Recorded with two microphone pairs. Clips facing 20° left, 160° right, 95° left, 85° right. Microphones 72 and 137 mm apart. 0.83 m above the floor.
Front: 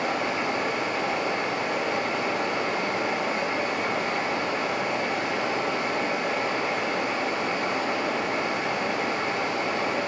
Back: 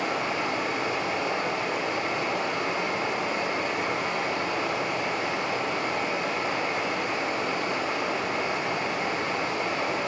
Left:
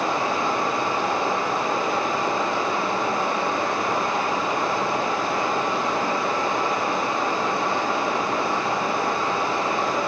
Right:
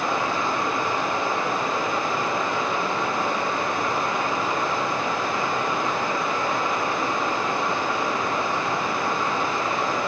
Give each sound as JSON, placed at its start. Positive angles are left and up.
{"t": 0.0, "sound": "running water", "azimuth_deg": 40, "distance_m": 4.0}